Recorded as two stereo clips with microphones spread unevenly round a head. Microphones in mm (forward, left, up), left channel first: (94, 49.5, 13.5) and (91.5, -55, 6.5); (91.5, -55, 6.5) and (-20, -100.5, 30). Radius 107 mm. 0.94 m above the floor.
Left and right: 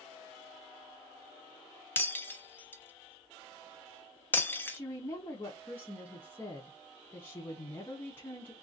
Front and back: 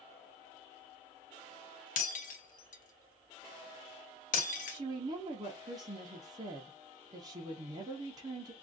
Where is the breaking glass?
20° left, 0.8 m.